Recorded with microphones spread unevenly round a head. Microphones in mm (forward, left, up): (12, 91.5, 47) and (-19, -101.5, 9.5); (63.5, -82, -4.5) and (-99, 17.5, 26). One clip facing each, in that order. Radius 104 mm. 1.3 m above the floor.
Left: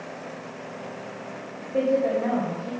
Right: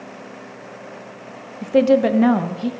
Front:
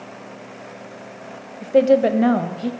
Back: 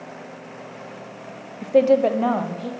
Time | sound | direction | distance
1.6 | a woman speaking | 130° right | 0.7 m